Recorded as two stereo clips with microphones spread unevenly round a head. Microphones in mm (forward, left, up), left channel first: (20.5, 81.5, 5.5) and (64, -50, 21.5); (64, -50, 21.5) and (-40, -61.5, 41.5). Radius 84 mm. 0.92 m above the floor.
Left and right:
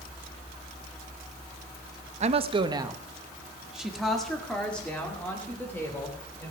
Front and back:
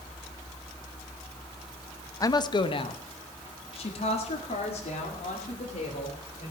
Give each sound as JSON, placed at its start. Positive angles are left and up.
{"t": 2.2, "sound": "a woman speaking", "azimuth_deg": -35, "distance_m": 0.9}